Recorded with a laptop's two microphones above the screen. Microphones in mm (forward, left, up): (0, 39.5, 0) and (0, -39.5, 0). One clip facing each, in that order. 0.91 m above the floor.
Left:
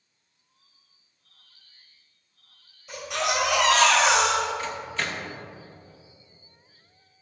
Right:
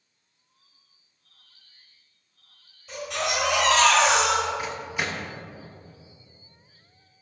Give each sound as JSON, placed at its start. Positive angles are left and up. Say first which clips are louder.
{"t": 2.9, "sound": "a baby crying", "louder": "left 1 dB", "side_deg": 5, "distance_m": 1.8}
{"t": 4.6, "sound": "a microwave", "louder": "right 1 dB", "side_deg": -10, "distance_m": 0.7}